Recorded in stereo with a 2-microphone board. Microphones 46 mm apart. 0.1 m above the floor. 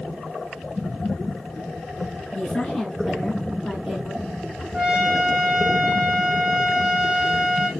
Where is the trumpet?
30° right (ahead or behind), 1.8 m.